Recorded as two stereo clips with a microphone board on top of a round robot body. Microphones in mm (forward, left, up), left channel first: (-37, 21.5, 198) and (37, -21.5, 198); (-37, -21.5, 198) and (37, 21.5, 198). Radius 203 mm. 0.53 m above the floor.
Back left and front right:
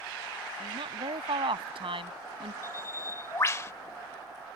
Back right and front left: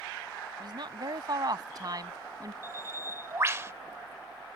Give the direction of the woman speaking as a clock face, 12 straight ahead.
12 o'clock.